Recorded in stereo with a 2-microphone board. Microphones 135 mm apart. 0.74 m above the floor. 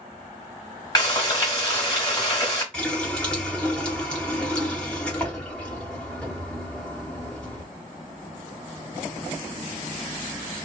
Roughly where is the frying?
Left.